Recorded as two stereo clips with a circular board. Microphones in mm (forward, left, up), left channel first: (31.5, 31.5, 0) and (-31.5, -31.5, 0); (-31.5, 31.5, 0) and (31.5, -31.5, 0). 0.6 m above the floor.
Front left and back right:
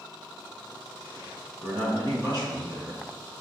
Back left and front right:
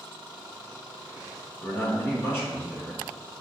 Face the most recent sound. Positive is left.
turn(degrees=-165)